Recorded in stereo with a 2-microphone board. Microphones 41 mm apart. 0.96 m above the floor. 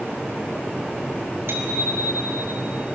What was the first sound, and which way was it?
A bicycle bell, 75° right (ahead or behind).